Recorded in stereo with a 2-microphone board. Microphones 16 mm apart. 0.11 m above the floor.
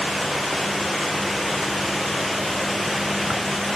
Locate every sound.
Only background noise.